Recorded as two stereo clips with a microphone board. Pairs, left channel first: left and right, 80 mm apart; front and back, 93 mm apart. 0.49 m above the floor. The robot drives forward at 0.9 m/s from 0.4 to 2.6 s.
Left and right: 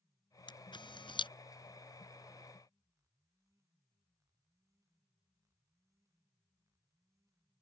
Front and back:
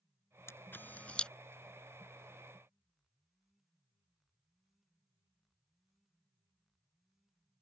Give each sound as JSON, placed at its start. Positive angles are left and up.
{"t": 0.5, "sound": "a camera shutter", "azimuth_deg": 65}